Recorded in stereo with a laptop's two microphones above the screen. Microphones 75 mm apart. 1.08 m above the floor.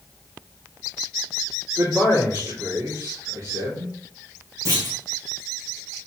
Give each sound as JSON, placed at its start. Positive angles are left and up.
{"t": 1.8, "sound": "a man speaking", "side_deg": -60, "distance_m": 3.0}
{"t": 4.7, "sound": "a clunk", "side_deg": -70, "distance_m": 2.5}